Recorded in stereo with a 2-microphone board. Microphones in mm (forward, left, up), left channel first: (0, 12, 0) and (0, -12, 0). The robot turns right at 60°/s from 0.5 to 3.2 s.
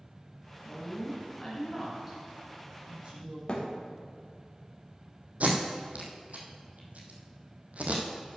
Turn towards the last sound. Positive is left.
turn(degrees=-85)